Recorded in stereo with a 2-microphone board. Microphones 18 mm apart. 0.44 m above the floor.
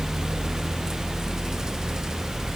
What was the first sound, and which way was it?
Only background noise.